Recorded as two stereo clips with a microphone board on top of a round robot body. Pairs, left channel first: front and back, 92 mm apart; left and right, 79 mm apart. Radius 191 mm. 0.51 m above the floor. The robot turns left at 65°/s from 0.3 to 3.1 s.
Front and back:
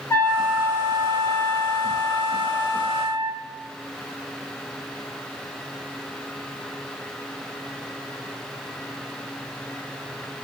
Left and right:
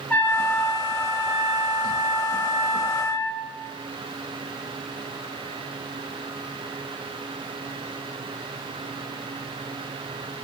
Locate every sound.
0.1 s a trumpet: 40° left, 1.1 m; by 3.4 s 140° right, 1.1 m